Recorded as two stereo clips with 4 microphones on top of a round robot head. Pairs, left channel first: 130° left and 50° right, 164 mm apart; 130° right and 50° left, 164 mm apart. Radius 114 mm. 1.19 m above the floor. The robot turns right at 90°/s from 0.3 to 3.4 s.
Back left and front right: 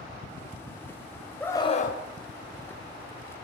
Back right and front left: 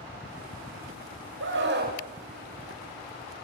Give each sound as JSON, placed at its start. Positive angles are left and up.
{"t": 1.4, "sound": "a scream", "azimuth_deg": 45, "distance_m": 5.0}